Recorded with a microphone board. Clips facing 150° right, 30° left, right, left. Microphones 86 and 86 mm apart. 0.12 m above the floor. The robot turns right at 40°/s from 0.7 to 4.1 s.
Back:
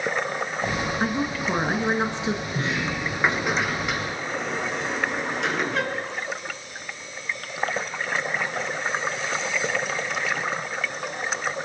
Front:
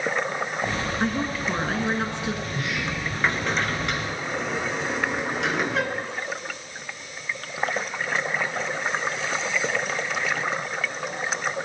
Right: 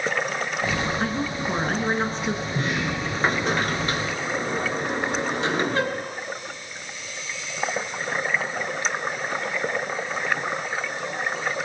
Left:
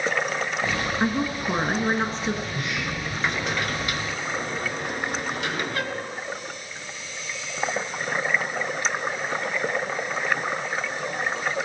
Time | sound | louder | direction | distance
1.0 | a woman speaking | front 1 dB, left 1 dB | 135° left | 1.7 m
2.5 | a sliding door | back 2 dB, right 3 dB | 120° right | 1.2 m